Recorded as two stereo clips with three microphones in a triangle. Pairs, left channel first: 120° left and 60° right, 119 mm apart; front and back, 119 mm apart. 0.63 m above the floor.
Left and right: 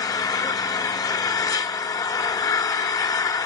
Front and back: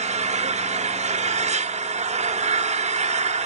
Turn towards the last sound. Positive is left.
turn(degrees=180)